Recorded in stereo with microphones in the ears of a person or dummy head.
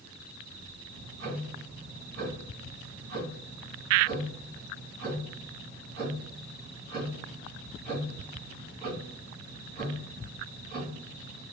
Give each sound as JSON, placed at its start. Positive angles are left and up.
{"t": 0.9, "sound": "ticking", "side_deg": -50, "distance_m": 1.7}